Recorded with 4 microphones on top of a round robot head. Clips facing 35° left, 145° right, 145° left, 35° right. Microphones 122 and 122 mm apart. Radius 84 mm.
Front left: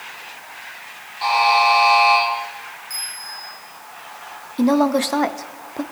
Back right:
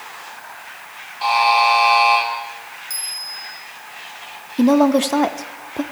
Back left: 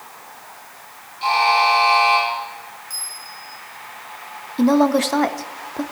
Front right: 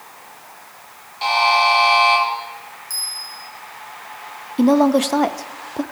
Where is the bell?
95° right, 4 m.